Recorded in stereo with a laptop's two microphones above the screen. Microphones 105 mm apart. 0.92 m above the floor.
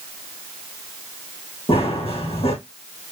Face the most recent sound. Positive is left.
turn(degrees=70)  # may be behind; listen again after turning